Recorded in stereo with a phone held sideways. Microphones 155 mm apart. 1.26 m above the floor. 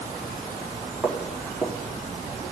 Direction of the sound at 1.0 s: 5° right (ahead or behind).